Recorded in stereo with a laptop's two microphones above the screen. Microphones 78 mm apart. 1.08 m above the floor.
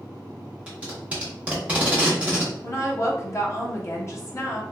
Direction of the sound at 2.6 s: 35° left (ahead or behind).